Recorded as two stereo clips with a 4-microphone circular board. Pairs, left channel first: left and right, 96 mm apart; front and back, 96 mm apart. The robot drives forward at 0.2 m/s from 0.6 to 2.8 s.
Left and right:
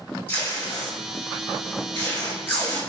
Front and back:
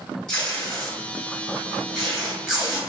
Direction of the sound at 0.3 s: 70° left.